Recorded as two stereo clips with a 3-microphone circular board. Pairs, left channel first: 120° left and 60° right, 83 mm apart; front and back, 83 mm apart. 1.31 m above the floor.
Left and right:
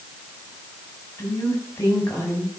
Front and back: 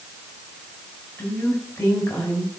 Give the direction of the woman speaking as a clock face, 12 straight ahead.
10 o'clock.